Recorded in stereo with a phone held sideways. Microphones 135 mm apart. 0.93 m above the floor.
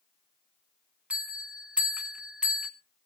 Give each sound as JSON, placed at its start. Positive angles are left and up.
{"t": 1.1, "sound": "a bell", "side_deg": -10, "distance_m": 1.9}